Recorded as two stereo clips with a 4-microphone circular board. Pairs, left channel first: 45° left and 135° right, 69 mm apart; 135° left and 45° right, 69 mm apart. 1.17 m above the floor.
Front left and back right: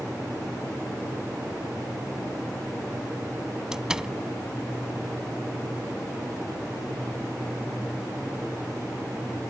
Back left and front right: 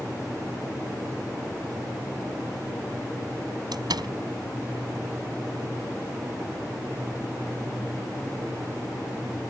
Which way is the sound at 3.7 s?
55° right.